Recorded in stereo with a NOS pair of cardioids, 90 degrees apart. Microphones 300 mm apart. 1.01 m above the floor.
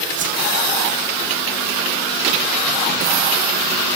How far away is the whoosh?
About 1.5 m.